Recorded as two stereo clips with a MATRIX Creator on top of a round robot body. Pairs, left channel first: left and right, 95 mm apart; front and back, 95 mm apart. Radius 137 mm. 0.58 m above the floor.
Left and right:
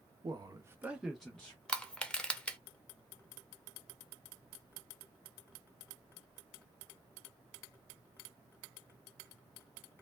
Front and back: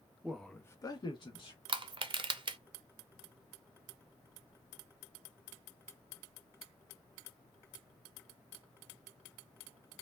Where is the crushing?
170° left, 0.7 m.